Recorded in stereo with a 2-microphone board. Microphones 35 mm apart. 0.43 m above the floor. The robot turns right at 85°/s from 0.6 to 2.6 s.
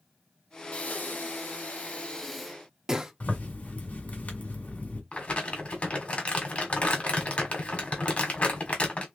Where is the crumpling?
35° left (ahead or behind), 1.5 m.